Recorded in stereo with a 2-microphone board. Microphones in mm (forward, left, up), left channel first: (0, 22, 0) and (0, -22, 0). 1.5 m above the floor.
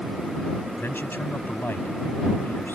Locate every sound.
0.8 s a man speaking: 50° left (ahead or behind)